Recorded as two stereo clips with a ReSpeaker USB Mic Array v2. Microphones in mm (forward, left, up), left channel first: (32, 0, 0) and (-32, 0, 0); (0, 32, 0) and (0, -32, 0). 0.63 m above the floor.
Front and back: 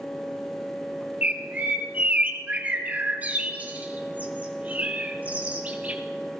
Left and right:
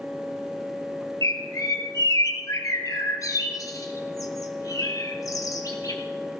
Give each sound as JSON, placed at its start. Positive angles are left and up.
{"t": 1.2, "sound": "a bird", "azimuth_deg": 115, "distance_m": 1.4}